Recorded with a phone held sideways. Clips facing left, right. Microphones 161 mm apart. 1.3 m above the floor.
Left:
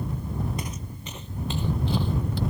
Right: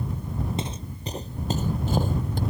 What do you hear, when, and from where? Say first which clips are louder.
0.6 s footsteps: right 3 dB; 25° right (ahead or behind); by 2.4 s 45° right (ahead or behind)